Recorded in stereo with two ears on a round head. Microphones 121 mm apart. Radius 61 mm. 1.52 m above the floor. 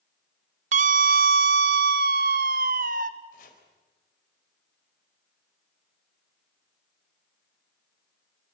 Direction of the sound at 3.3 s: 70° left (ahead or behind).